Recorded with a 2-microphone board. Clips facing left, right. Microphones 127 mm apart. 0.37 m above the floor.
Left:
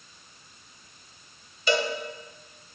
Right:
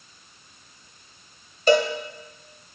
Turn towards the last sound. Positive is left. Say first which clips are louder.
# right 7 dB
turn(degrees=-45)  # may be behind; listen again after turning